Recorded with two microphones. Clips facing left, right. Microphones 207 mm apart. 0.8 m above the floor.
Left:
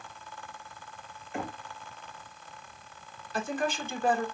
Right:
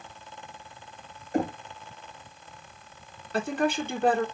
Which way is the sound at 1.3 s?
40° right (ahead or behind).